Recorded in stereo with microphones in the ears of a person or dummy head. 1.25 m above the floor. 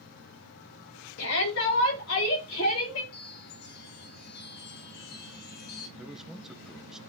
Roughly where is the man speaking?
Centre.